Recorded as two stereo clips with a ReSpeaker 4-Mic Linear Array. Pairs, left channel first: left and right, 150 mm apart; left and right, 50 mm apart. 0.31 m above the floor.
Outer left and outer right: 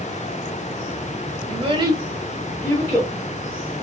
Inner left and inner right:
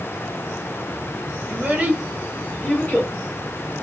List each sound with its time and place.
1.5 s a child speaking: 45° right (ahead or behind), 1.1 m; by 3.1 s 35° left (ahead or behind), 1.1 m